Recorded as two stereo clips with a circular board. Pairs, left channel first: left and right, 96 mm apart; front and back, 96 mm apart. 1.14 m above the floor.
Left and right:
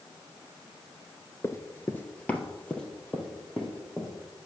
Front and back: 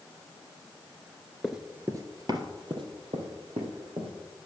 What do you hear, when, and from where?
1.4 s running footsteps: 95° left, 1.2 m; by 4.4 s 175° left, 4 m